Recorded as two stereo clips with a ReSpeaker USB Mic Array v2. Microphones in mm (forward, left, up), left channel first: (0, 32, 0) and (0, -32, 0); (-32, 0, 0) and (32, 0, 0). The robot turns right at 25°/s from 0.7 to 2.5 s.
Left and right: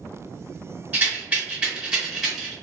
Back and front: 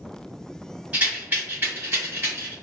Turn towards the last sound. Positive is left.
turn(degrees=-10)